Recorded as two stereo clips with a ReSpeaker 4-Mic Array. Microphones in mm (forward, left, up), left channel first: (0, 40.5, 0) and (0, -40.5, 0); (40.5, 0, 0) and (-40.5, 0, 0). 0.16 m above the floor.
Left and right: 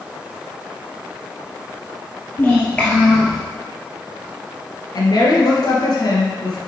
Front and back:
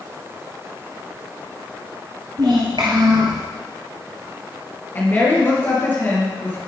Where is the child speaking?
155° left, 2.5 m; by 3.4 s 165° right, 1.3 m.